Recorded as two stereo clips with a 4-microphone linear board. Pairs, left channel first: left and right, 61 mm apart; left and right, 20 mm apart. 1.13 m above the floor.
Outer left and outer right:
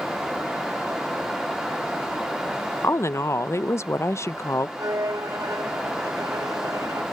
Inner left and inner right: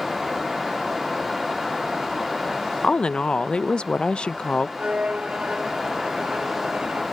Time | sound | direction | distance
2.8 | a woman speaking | 50° left (ahead or behind) | ?
4.8 | a violin | 80° right | ?